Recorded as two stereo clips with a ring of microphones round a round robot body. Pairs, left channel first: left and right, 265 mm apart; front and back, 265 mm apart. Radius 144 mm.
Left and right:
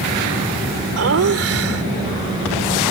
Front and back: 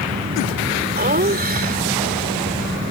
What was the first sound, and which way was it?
Laughter, 125° right.